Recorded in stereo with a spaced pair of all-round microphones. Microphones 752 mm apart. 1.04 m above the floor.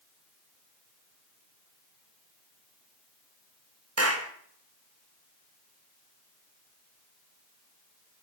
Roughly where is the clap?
Centre.